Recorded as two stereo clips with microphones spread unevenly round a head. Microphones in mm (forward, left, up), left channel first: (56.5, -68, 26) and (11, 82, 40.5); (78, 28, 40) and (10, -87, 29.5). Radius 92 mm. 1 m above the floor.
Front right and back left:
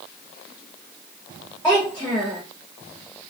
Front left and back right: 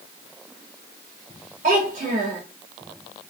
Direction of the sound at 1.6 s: 155° right.